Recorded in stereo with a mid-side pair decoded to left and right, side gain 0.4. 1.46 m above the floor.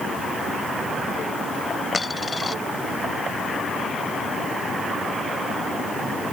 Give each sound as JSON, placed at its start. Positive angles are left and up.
{"t": 1.9, "sound": "a dropped coin", "azimuth_deg": 30}